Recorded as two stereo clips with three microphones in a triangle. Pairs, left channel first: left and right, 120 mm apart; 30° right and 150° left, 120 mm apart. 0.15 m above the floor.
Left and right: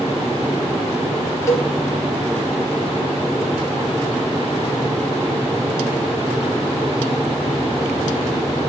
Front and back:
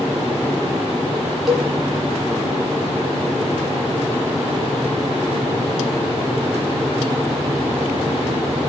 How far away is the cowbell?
About 1.6 m.